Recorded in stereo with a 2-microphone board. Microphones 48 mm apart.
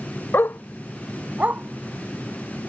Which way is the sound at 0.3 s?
65° left (ahead or behind).